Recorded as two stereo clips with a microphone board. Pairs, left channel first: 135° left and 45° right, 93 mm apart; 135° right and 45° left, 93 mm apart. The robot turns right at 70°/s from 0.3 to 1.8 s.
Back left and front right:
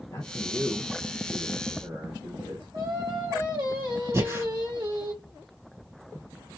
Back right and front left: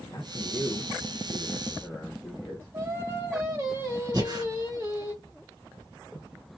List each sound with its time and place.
0.1 s a man speaking: 175° right, 1.3 m; by 2.7 s 70° right, 1.3 m
2.7 s singing: 10° right, 1.9 m
4.1 s breathing: 10° left, 1.8 m